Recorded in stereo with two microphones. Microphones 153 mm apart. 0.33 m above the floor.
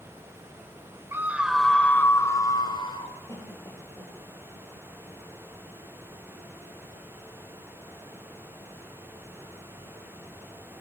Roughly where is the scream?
Centre.